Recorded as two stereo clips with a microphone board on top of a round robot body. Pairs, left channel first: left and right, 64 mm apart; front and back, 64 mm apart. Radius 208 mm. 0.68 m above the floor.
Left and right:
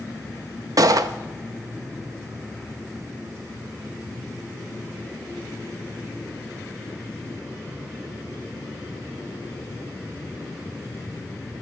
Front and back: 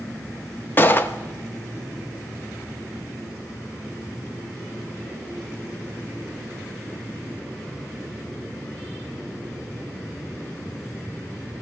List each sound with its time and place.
0.8 s a gunshot: 60° right, 0.6 m